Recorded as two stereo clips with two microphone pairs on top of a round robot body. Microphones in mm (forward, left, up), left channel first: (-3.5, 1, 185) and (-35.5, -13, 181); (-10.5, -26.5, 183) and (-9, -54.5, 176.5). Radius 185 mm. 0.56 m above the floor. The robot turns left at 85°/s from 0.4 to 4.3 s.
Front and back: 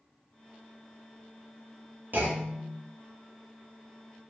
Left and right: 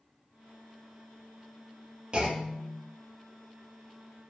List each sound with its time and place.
2.1 s a clunk: 130° right, 1.3 m; by 2.8 s 175° left, 1.3 m